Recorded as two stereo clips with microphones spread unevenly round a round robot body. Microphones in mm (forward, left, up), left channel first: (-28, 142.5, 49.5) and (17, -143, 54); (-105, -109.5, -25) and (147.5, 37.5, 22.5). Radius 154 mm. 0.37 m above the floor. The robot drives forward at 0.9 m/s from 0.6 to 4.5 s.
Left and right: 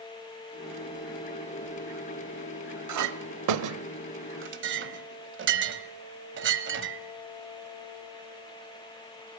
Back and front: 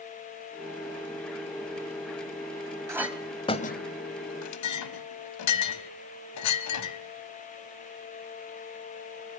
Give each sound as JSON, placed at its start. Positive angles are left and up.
{"t": 2.9, "sound": "a clink", "azimuth_deg": -55, "distance_m": 1.2}